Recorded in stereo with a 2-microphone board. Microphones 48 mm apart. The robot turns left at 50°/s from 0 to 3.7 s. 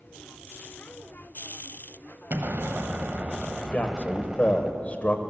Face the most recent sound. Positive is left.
turn(degrees=30)  # may be behind; listen again after turning